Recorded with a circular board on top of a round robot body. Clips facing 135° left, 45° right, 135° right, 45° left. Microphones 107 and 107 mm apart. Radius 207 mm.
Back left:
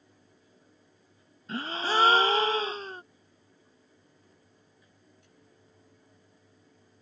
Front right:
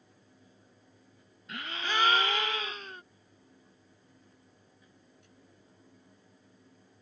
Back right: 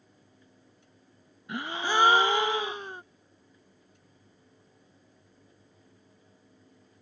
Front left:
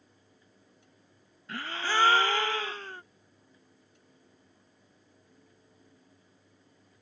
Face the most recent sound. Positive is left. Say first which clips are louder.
# back left 6 dB, back right 3 dB
turn(degrees=165)